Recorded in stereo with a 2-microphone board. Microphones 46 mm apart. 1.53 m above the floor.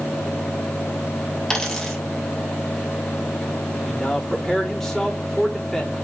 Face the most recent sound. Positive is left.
turn(degrees=5)  # may be behind; listen again after turning